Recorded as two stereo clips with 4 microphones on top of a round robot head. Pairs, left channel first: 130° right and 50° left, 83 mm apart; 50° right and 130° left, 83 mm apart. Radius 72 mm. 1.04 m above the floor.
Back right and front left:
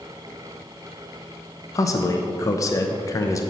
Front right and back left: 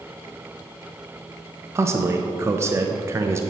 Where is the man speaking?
175° right, 0.7 m.